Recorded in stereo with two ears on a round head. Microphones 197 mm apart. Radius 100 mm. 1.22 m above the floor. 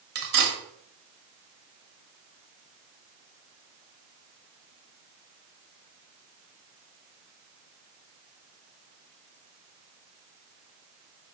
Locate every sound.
0.1 s cutlery clinking: 45° right (ahead or behind), 1.7 m